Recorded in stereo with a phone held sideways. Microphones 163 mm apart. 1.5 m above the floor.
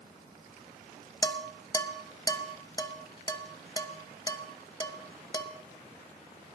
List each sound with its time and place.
1.2 s dishes clattering: 25° left (ahead or behind), 1.0 m